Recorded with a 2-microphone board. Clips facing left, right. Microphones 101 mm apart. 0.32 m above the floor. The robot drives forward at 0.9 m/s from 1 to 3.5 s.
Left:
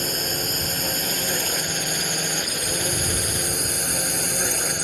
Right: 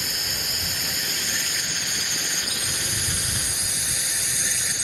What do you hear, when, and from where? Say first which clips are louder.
0.0 s a drone: left 7 dB; 45° left (ahead or behind); by 4.8 s 50° left (ahead or behind)